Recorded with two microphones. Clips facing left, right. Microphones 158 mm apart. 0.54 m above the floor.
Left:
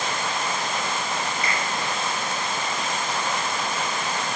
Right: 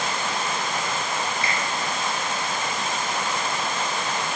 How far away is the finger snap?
About 3 m.